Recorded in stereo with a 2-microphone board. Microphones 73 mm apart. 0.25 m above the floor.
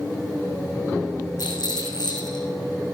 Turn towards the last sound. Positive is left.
turn(degrees=70)  # may be behind; listen again after turning